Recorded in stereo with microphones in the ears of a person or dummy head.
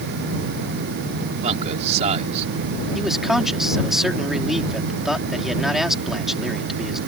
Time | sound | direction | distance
1.4 | a man speaking | 45° right (ahead or behind) | ?
3.0 | a man speaking | 5° right (ahead or behind) | ?